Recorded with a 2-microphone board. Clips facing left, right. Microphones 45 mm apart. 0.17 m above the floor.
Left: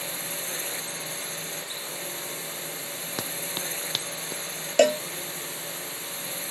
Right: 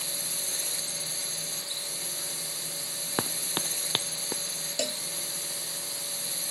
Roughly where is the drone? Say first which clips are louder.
Left 4 dB; left.